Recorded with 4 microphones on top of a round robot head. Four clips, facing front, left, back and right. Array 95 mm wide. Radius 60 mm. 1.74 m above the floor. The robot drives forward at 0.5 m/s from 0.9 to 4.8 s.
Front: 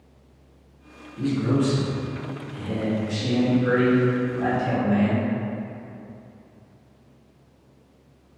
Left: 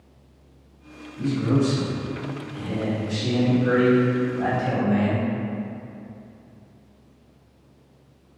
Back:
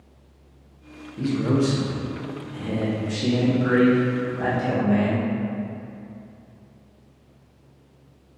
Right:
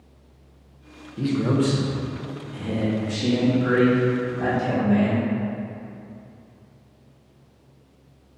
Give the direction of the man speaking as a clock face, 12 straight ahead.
4 o'clock.